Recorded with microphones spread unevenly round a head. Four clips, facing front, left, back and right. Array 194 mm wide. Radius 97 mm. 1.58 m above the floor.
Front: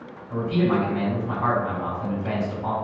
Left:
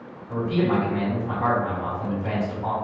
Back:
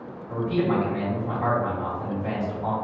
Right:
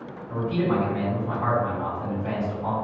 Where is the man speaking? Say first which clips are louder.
Left 2 dB, front 1 dB; 135° left, 1.3 m.